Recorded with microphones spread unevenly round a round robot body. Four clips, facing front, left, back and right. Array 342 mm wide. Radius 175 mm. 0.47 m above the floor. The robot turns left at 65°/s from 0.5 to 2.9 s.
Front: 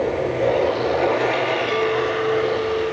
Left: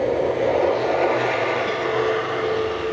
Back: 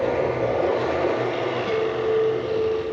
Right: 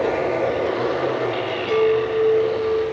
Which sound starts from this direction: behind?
A chime, at 1.7 s.